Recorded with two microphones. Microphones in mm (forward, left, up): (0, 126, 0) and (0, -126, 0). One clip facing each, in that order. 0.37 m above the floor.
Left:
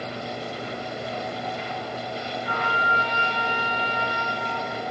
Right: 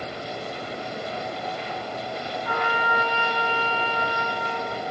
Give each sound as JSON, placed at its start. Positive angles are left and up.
{"t": 2.5, "sound": "a trumpet", "side_deg": 20, "distance_m": 3.5}